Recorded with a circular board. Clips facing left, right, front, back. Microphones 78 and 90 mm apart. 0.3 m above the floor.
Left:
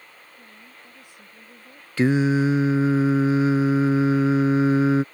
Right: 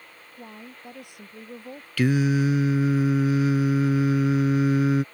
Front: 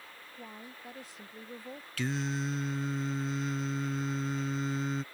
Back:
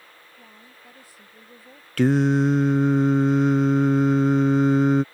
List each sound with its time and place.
0.4 s a woman speaking: 70° right
2.0 s singing: 150° left